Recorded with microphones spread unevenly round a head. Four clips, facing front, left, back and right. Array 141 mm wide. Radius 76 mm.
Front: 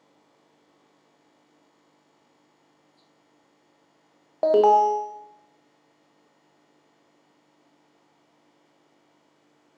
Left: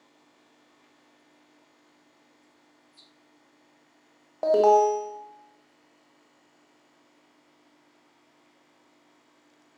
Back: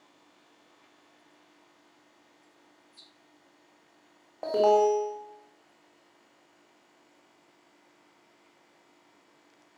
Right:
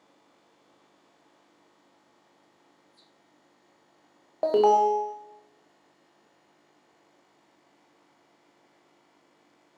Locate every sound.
4.4 s an alarm: 15° right, 1.7 m